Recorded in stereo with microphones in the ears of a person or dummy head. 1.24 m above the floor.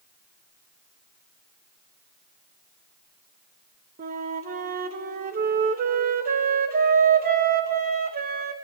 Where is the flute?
50° right (ahead or behind), 1.5 m.